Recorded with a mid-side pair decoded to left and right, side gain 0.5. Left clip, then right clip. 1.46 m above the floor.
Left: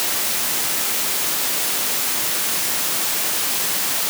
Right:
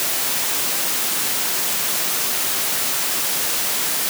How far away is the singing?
No singing in this recording.